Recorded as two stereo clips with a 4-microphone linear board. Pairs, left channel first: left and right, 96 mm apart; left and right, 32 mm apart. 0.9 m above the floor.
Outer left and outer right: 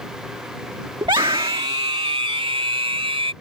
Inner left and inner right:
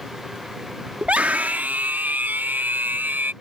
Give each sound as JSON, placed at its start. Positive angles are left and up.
{"t": 1.0, "sound": "a scream", "side_deg": -50}